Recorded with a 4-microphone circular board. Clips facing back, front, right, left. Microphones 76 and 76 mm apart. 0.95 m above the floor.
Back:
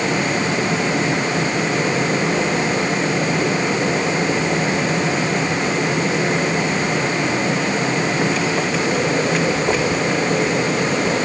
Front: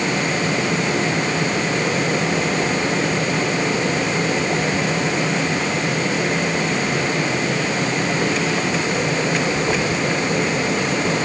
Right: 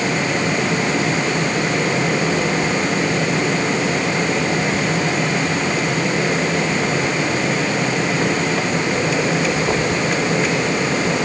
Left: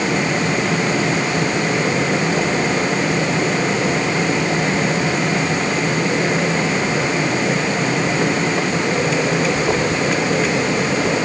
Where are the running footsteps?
No running footsteps in this recording.